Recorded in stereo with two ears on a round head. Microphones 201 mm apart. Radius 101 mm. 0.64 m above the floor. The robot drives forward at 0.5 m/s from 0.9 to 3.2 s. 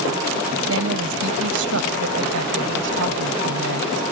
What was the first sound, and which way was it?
A woman speaking, 65° right (ahead or behind).